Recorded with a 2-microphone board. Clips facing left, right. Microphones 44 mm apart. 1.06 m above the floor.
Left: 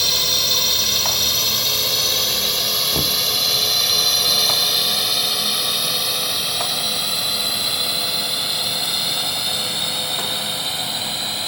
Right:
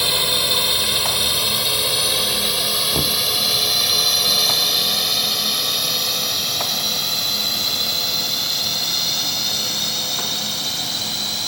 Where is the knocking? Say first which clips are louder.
Even; 5° right (ahead or behind).